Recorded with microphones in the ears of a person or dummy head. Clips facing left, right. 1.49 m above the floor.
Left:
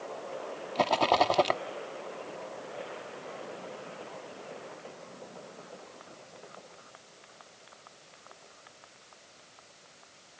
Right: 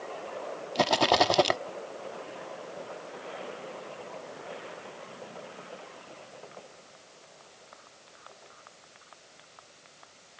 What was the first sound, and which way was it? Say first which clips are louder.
A rattle: right 1 dB; 10° right (ahead or behind).